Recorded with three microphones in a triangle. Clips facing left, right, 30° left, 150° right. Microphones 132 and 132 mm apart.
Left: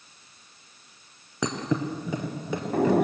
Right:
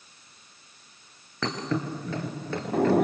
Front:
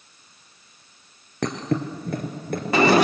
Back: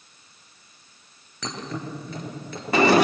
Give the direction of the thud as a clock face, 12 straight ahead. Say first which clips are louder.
Left 2 dB, front 8 dB; 11 o'clock.